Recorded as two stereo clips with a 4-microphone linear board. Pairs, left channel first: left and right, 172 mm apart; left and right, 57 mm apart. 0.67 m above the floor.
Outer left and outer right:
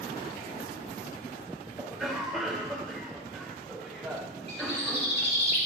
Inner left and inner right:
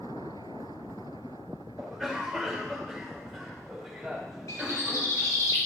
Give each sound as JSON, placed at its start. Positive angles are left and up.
{"t": 1.8, "sound": "a cough", "side_deg": 0, "distance_m": 2.5}
{"t": 4.5, "sound": "a bird", "side_deg": 80, "distance_m": 2.0}